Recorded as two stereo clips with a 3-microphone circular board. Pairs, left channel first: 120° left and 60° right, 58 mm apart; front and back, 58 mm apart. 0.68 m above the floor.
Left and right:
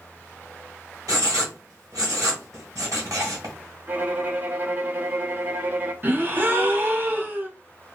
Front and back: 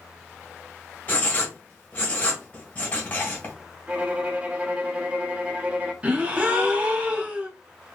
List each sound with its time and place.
1.1 s writing: 60° right, 1.6 m
3.9 s a violin: 115° right, 0.6 m
6.0 s a gasp: 115° right, 0.7 m